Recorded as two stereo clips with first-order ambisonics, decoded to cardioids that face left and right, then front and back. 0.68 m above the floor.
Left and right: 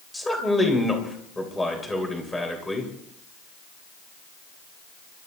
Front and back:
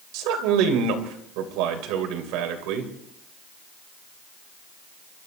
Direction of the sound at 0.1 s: 170° left.